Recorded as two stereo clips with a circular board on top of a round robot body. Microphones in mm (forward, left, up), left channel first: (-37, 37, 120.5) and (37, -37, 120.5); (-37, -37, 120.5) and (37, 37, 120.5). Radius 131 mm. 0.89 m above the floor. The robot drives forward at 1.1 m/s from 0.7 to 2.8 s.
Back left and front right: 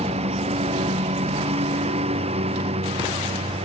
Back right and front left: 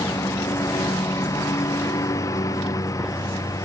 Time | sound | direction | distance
0.0 | a lawn mower | 70° right | ?